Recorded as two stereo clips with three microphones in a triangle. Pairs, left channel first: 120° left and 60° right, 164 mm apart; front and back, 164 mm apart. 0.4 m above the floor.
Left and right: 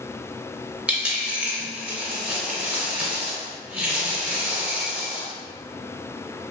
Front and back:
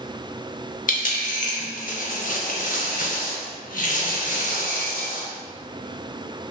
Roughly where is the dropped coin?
Ahead.